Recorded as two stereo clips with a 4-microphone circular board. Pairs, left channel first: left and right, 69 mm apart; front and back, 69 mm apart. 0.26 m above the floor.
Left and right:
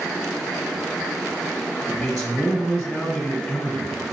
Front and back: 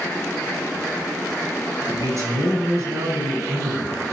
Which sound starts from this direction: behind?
A man speaking, at 1.9 s.